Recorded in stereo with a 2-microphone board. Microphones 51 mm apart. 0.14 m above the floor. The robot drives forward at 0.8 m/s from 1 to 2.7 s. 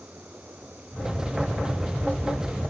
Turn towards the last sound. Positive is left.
No sound to turn to.